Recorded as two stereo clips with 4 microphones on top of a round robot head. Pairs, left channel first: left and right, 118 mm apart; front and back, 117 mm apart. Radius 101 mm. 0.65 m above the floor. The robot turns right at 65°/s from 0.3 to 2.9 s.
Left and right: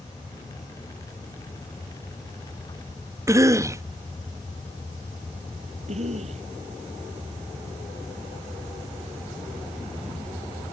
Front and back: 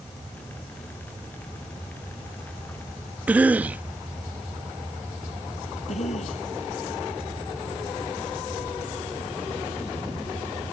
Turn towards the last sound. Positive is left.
turn(degrees=-45)